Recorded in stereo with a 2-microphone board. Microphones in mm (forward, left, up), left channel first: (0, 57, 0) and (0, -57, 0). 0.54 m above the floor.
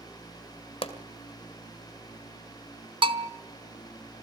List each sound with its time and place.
0.8 s a pop: 55° left (ahead or behind), 2.0 m
3.0 s a bell: 45° right (ahead or behind), 0.9 m